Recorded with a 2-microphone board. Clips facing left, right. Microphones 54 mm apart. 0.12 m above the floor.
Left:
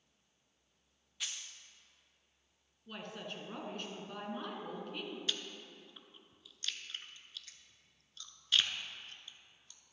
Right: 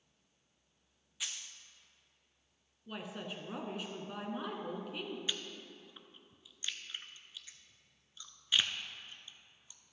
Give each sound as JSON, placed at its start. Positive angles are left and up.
{"t": 1.2, "sound": "a dropped coin", "side_deg": -5, "distance_m": 0.6}
{"t": 2.9, "sound": "a woman speaking", "side_deg": -10, "distance_m": 1.1}
{"t": 5.3, "sound": "chewing", "side_deg": -15, "distance_m": 0.6}